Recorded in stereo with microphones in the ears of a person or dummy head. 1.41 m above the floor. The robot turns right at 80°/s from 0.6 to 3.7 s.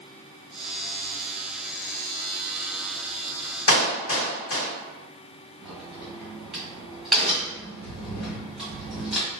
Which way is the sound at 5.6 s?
5° right (ahead or behind).